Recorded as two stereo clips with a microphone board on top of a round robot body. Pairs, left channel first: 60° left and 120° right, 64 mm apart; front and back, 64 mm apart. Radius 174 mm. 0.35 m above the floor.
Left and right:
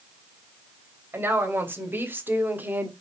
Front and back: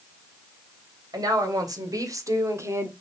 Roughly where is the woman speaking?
Behind.